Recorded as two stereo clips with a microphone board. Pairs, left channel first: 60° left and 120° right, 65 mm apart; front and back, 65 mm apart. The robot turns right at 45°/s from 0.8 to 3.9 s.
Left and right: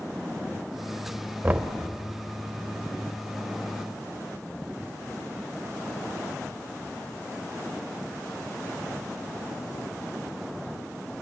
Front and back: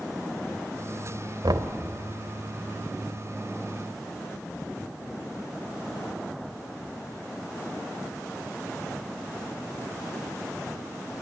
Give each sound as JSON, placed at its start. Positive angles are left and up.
{"t": 1.4, "sound": "knocking", "azimuth_deg": 175, "distance_m": 1.5}